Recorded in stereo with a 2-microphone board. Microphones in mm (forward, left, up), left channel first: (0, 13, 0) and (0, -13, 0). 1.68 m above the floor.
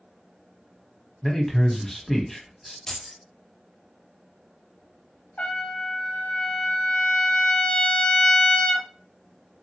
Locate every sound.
1.2 s a man speaking: 10° left (ahead or behind), 1.0 m
2.9 s keys jangling: 15° left (ahead or behind), 0.7 m
5.4 s a trumpet: 50° left (ahead or behind), 0.7 m